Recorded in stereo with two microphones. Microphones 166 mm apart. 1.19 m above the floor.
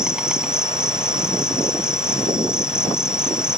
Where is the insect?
5° right (ahead or behind).